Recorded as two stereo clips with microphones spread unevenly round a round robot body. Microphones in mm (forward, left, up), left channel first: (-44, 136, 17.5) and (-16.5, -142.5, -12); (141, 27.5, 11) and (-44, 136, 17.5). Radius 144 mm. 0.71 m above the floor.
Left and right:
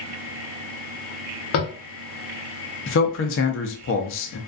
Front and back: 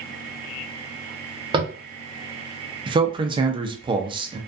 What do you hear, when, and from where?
1.5 s tapping: 90° left, 0.7 m
2.9 s a man speaking: 95° left, 0.5 m